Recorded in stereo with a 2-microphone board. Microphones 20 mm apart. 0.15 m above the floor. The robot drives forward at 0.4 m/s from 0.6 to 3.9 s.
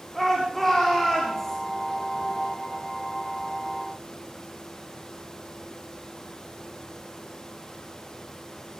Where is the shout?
20° left (ahead or behind), 8 m.